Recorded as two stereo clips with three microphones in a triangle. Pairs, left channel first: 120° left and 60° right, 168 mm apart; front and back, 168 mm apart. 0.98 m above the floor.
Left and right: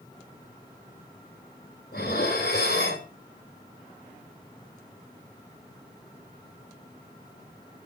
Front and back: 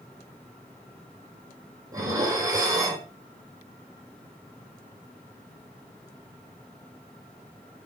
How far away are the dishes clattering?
About 2.5 m.